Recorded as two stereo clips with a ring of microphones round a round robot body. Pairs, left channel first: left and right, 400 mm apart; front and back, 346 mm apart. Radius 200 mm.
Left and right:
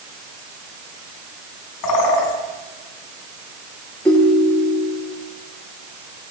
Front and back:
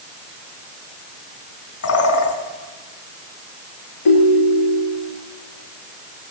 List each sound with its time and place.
1.8 s a bird: 45° left, 5 m
4.0 s a ringtone: 5° left, 7 m